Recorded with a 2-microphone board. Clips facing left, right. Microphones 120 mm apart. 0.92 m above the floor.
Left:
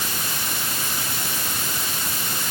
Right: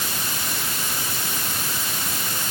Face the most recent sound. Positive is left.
No sound to turn to.